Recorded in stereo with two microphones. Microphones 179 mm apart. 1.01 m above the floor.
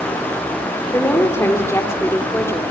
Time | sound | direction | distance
0.9 | a woman speaking | 15° left (ahead or behind) | 3 m